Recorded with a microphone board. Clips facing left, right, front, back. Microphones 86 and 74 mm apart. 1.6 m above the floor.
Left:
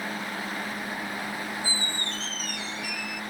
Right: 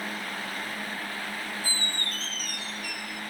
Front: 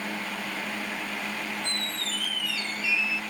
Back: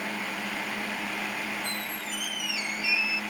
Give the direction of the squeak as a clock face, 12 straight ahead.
4 o'clock.